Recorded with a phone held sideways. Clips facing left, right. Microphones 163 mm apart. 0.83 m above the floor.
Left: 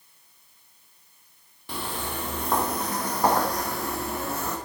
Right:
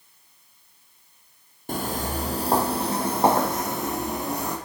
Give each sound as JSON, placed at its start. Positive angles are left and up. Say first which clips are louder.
{"t": 1.7, "sound": "footsteps", "louder": "right 5 dB", "side_deg": -45, "distance_m": 1.4}